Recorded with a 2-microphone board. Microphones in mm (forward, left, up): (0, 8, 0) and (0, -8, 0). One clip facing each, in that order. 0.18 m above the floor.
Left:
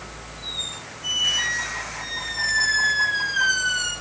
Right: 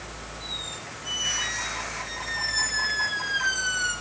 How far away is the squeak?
About 5.5 m.